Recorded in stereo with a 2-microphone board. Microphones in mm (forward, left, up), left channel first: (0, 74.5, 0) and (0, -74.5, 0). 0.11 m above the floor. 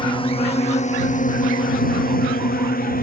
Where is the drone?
35° left (ahead or behind); by 3.0 s 75° left (ahead or behind).